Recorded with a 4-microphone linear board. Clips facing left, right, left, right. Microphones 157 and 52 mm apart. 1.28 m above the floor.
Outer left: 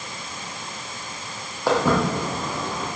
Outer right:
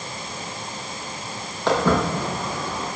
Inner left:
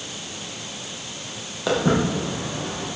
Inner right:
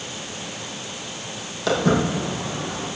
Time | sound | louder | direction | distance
1.7 | footsteps | even, inner right 1 dB | 10° left (ahead or behind) | 3 m